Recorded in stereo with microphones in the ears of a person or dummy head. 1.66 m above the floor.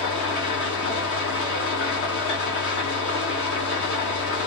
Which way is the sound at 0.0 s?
60° left (ahead or behind).